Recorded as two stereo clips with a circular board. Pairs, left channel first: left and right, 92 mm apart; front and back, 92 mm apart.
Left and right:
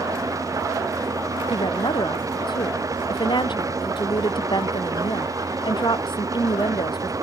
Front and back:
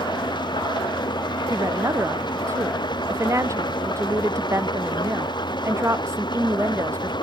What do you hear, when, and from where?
0.0 s an engine running: 35° right
1.5 s a woman speaking: 125° left